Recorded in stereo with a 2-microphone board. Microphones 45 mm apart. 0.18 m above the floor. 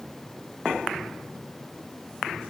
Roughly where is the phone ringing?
No phone ringing in this recording.